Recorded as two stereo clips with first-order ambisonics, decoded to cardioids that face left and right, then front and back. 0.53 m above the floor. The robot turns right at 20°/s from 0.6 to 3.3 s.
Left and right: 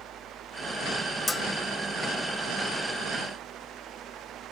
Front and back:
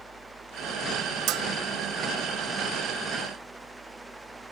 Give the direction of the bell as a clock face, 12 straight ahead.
7 o'clock.